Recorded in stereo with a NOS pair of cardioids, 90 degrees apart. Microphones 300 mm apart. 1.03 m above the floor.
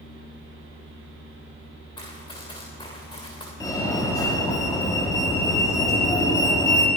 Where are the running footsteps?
15° left, 7.5 m.